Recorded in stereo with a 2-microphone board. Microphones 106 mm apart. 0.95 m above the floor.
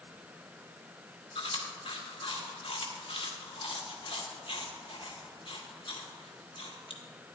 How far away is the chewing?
About 1.2 m.